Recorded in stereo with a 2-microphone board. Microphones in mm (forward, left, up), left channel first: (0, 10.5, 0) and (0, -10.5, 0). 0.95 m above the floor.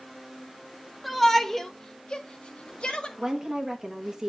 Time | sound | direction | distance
1.0 | a shout | centre (ahead or behind) | 1.5 m
3.2 | a woman speaking | 30° right (ahead or behind) | 1.5 m